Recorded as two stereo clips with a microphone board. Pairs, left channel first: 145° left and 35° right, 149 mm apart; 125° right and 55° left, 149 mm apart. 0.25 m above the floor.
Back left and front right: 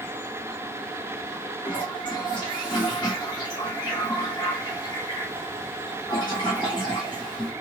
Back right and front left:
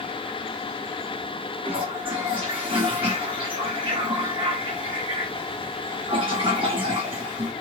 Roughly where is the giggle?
I don't hear a giggle.